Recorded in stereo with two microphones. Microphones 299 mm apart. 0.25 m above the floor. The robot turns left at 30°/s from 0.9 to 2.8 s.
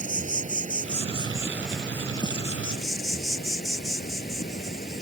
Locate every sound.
0.0 s an insect: 155° right; by 5.0 s 150° left